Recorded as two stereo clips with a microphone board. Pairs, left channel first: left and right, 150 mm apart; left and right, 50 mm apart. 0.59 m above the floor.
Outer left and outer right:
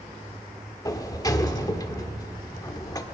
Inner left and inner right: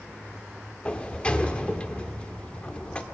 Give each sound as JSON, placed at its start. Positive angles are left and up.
{"t": 0.8, "sound": "a sliding door", "side_deg": 25, "distance_m": 1.1}